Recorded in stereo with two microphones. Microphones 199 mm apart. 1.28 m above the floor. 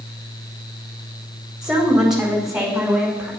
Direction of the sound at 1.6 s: 5° right (ahead or behind).